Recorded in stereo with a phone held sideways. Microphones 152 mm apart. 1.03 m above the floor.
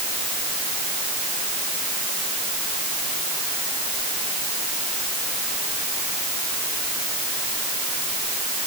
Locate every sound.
Only background noise.